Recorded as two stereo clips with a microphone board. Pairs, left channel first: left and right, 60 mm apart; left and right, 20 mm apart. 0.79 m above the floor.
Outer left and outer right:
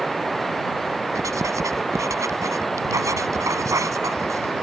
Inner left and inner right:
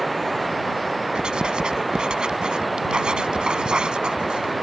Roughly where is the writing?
Right.